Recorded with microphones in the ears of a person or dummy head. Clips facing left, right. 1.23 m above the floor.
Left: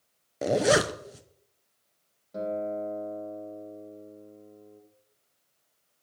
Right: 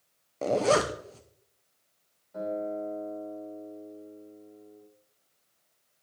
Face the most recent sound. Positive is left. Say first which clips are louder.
# left 1 dB
turn(degrees=55)  # may be behind; listen again after turning